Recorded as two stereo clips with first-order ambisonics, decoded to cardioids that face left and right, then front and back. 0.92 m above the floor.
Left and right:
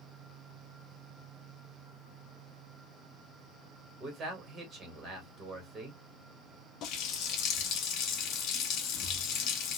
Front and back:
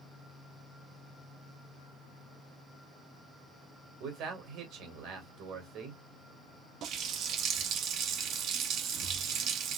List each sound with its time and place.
4.0 s a man speaking: 155° right, 1.5 m
6.8 s a running tap: 130° left, 0.7 m